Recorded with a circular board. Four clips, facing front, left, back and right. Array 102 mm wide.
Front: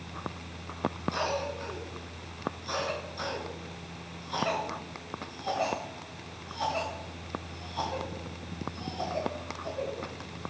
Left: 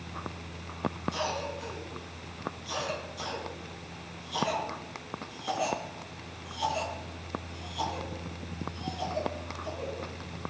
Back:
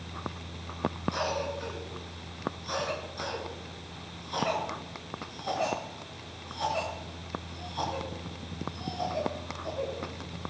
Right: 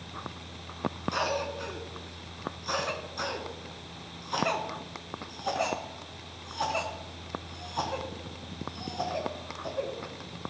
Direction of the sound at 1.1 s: 85° right.